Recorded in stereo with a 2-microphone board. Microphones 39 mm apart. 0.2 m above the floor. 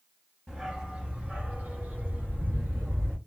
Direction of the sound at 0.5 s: 25° right (ahead or behind).